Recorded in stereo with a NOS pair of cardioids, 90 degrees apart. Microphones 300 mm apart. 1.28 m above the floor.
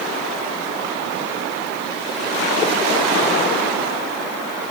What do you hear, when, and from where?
Only background noise.